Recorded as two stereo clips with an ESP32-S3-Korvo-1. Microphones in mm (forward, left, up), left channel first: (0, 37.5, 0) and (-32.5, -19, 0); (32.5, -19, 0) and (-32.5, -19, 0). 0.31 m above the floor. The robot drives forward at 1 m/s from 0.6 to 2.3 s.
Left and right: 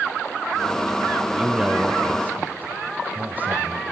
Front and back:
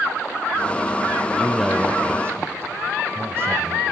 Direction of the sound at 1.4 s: 55° right.